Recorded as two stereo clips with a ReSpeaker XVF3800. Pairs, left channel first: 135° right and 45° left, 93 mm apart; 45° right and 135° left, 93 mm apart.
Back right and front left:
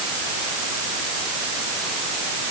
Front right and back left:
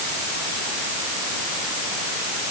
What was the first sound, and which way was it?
Only background noise.